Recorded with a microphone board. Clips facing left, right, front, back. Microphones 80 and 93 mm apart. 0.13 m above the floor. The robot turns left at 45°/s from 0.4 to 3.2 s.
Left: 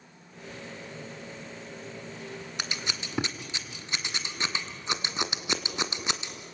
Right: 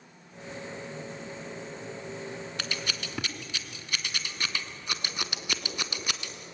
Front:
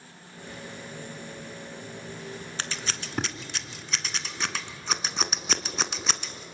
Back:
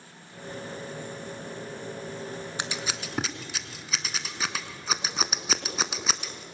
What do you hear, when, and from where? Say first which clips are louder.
2.6 s scissors: left 2 dB, even; 125° left, 1.4 m; by 6.4 s 95° left, 1.4 m